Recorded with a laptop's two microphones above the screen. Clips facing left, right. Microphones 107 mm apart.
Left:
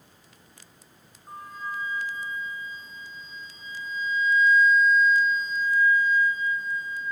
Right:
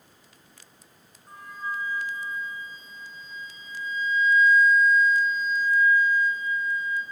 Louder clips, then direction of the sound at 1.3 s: Right 1 dB; 30° left (ahead or behind).